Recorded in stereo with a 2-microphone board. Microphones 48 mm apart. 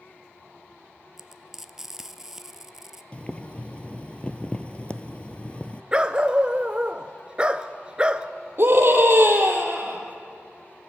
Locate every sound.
1.2 s frying: 5° right (ahead or behind), 0.6 m
3.1 s boiling: 25° left (ahead or behind), 0.6 m
5.9 s a dog barking: 20° right (ahead or behind), 0.6 m
8.6 s a scream: 50° right (ahead or behind), 4 m